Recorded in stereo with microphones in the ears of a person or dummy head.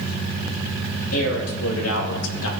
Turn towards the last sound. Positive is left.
turn(degrees=70)  # may be behind; listen again after turning